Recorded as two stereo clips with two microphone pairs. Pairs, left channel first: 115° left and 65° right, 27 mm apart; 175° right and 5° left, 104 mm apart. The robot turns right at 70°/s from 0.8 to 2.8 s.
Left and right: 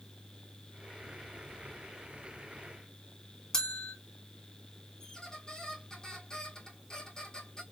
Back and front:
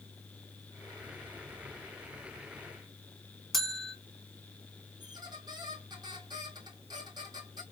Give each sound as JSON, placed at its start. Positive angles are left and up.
{"t": 3.5, "sound": "a bell", "azimuth_deg": 90, "distance_m": 1.1}
{"t": 5.0, "sound": "a squeak", "azimuth_deg": 50, "distance_m": 1.9}